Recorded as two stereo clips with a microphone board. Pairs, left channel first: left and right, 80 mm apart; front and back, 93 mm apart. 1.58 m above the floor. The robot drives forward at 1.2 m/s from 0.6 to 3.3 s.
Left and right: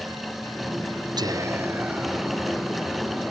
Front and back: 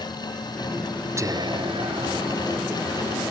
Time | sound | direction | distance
1.2 | whispering | 120° right | ?